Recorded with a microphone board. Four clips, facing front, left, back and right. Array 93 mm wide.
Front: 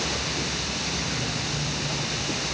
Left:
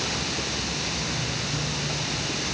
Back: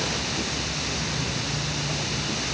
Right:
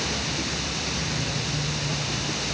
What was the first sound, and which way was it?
Only background noise.